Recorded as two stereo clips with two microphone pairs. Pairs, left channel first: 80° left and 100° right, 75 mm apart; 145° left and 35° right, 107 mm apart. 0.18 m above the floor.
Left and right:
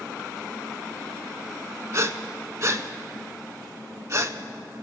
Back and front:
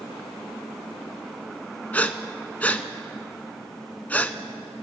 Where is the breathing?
140° right, 0.5 m.